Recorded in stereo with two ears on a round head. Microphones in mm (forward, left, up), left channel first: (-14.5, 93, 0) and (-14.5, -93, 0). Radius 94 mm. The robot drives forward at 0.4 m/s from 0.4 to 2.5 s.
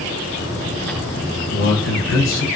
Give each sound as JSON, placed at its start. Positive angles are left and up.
{"t": 1.5, "sound": "a man speaking", "side_deg": 55, "distance_m": 1.0}